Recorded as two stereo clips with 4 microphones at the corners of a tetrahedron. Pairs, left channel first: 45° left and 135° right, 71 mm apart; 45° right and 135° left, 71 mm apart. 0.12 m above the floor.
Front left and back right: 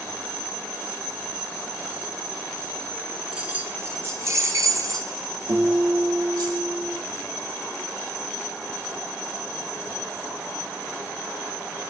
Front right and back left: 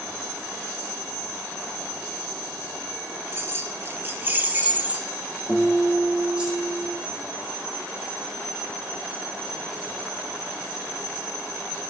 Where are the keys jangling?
155° left, 1.1 m; by 6.5 s 150° right, 3 m.